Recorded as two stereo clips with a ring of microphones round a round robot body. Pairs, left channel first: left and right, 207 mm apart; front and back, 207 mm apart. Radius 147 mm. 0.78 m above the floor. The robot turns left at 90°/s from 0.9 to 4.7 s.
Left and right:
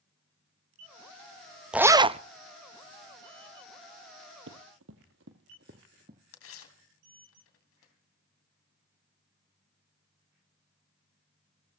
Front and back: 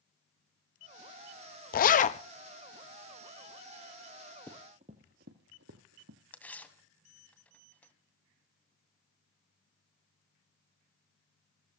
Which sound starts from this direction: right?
Running footsteps, at 4.5 s.